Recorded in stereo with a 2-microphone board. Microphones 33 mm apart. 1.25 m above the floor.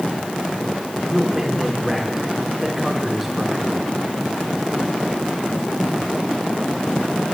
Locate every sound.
1.1 s a man speaking: 10° right (ahead or behind), 4 m